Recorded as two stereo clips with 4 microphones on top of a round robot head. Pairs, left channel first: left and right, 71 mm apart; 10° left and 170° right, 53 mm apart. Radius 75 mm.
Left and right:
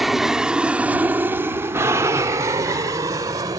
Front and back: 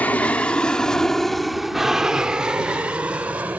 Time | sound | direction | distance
0.0 | an aircraft | 5° right | ?